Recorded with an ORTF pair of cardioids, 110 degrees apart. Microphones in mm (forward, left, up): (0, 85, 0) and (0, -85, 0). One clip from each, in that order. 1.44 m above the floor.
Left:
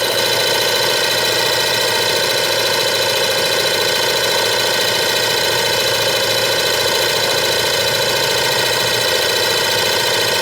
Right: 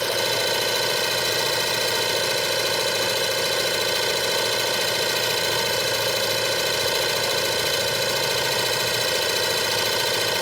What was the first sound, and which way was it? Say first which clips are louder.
An engine running: left 7 dB; 40° left.